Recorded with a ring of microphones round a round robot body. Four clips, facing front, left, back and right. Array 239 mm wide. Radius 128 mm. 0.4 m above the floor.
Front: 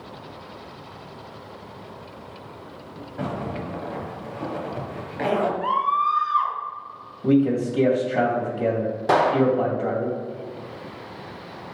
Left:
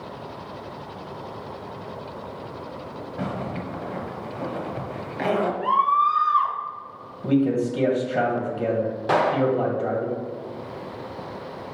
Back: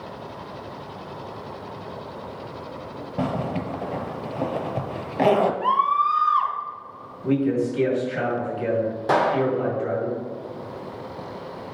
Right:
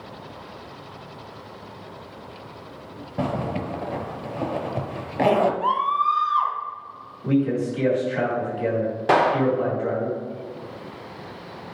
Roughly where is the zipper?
Behind right.